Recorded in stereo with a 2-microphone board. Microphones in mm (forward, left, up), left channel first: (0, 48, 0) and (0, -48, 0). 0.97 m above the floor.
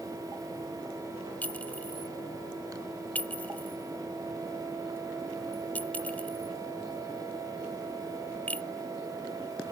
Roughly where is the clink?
Centre.